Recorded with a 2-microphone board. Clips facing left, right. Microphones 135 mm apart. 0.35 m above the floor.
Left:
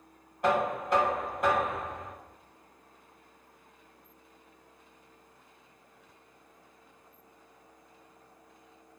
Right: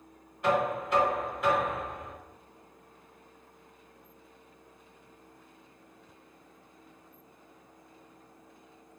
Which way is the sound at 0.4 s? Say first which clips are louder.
Even; 45° left (ahead or behind).